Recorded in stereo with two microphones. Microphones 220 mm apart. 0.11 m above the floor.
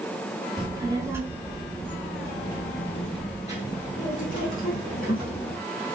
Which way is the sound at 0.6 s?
20° right (ahead or behind).